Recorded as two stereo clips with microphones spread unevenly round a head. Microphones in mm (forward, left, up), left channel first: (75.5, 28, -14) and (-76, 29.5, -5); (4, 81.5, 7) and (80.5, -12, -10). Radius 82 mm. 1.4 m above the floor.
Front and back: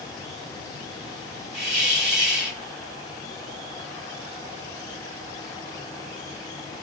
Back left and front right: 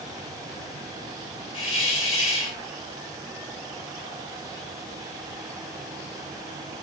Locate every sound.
1.5 s a hiss: 175° left, 2 m